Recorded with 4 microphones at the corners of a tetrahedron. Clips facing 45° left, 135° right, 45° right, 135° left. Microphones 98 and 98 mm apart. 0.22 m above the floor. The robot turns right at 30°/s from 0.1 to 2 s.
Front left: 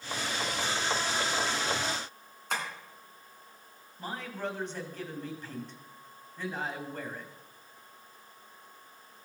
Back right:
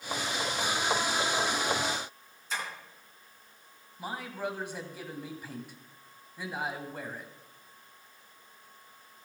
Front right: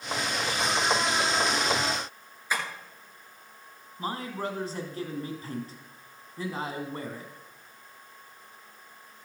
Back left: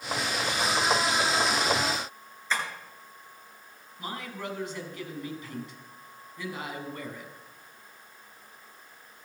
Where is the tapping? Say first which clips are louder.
Front left 2 dB, even; 30° left, 3 m.